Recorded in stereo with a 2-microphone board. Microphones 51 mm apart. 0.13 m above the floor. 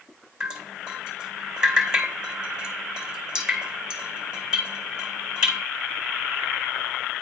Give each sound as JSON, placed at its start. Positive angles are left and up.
{"t": 0.4, "sound": "dripping", "side_deg": -15, "distance_m": 1.5}